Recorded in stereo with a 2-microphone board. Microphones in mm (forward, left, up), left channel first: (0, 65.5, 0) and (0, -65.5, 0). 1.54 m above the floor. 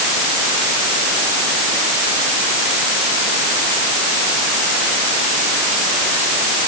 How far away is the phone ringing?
No phone ringing in this recording.